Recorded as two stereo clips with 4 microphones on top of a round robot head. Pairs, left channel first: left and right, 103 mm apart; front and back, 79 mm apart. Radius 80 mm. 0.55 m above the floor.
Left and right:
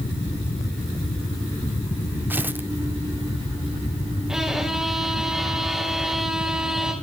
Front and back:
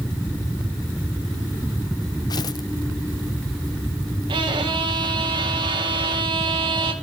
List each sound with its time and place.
2.3 s tearing paper: 20° right, 1.0 m
4.3 s a violin: 175° right, 3 m